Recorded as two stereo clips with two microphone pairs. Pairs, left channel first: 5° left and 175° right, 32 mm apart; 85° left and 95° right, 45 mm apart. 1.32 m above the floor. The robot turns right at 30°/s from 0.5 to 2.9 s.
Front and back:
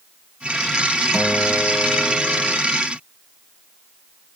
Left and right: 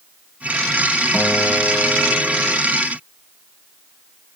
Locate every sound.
1.1 s a guitar: 20° left, 2.5 m; by 2.6 s 60° left, 2.5 m